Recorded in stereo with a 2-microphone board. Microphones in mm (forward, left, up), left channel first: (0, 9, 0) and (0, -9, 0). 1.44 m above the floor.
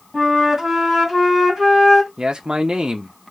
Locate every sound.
0.1 s a flute: 25° right (ahead or behind), 2.5 m
2.2 s a man speaking: 55° right (ahead or behind), 0.7 m